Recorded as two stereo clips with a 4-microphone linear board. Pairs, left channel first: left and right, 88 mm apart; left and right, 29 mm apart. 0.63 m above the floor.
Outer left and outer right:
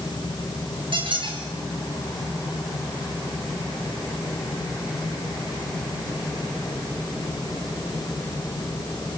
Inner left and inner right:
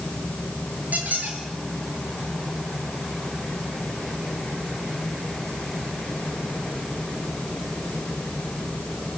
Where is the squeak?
70° right (ahead or behind), 7 m.